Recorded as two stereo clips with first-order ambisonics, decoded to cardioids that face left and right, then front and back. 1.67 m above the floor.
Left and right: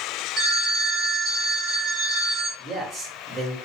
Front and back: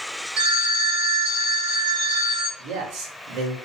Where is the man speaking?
160° right, 1.0 m.